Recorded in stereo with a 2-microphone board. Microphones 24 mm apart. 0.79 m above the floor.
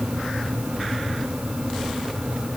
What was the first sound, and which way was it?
Only background noise.